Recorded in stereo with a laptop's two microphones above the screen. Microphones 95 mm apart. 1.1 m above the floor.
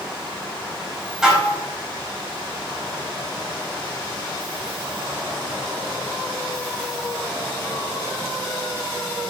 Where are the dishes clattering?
5° right (ahead or behind), 3.5 m.